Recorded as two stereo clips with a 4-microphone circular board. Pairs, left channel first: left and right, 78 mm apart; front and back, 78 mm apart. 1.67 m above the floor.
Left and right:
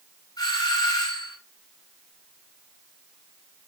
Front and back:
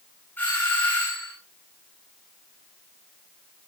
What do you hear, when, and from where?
0.4 s a doorbell: 65° left, 8.5 m